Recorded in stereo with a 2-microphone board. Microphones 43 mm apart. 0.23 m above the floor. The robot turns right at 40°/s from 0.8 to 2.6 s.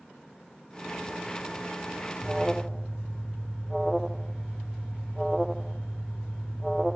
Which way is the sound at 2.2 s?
15° right (ahead or behind).